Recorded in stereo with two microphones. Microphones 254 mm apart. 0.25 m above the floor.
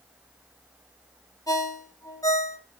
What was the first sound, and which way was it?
A ringtone, 15° left (ahead or behind).